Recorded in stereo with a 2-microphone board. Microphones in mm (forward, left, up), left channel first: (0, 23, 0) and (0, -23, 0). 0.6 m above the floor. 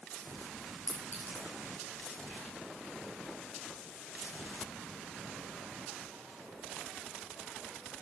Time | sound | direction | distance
0.9 | a clink | 40° left (ahead or behind) | 5 m